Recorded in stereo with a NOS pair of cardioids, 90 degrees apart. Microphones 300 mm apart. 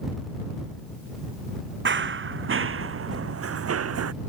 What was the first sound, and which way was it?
Running footsteps, 40° right.